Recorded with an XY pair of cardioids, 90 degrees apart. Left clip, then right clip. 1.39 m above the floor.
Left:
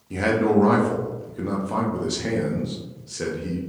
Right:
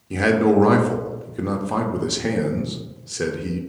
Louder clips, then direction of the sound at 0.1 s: Right 3 dB; 35° right.